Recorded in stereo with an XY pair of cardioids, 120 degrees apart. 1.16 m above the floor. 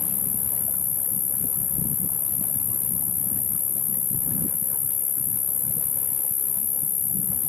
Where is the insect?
40° left.